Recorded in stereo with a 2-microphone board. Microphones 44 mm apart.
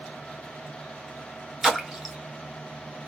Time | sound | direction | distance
1.6 | a splash | 10° right (ahead or behind) | 1.1 m